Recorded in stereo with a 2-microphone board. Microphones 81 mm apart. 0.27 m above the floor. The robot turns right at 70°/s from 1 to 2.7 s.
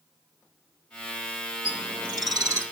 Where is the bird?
105° right, 0.7 m; by 2.6 s 35° right, 0.7 m.